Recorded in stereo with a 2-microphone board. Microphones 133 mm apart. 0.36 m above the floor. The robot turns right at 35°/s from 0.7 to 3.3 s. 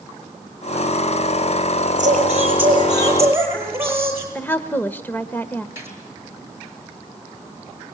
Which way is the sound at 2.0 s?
65° right.